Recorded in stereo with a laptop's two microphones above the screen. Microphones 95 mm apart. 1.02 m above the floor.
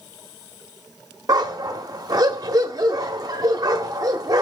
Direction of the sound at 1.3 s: 40° right (ahead or behind).